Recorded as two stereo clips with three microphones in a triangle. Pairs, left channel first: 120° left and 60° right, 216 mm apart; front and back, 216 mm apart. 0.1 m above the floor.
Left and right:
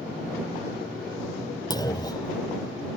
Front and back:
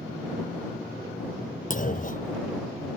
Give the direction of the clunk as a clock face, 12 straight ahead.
10 o'clock.